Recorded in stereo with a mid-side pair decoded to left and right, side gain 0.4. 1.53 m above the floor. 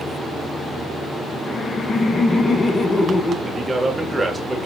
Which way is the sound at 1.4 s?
45° left.